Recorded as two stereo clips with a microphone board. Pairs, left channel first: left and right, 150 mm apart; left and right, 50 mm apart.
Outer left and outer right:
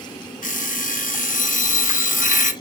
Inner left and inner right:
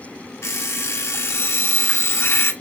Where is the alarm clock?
60° left (ahead or behind), 0.9 m.